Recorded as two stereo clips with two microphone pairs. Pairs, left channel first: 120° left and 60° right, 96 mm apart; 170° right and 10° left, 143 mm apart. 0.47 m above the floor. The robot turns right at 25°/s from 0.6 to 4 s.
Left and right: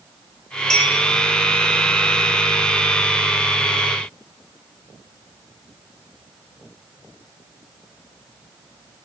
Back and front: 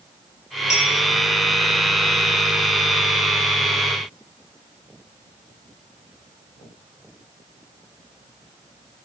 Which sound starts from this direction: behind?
A clink, at 0.7 s.